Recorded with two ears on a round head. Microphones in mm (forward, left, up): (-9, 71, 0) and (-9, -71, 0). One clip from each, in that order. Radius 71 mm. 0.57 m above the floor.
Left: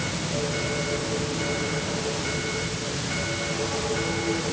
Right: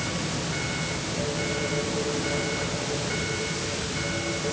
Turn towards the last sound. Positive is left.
No sound to turn to.